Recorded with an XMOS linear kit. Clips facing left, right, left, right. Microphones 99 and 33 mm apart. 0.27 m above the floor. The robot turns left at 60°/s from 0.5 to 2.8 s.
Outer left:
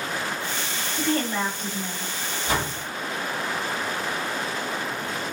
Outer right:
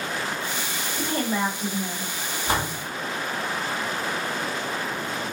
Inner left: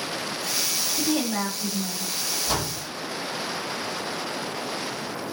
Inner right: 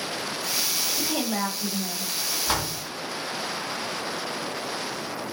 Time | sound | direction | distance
1.0 | a woman speaking | 20° right (ahead or behind) | 0.9 m
2.5 | a door slam | 40° right (ahead or behind) | 1.5 m